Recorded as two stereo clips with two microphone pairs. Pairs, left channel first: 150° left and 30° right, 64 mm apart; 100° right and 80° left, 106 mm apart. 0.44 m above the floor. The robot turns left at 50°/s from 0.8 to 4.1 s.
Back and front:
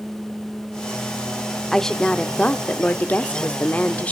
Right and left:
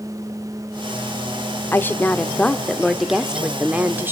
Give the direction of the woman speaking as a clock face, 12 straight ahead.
4 o'clock.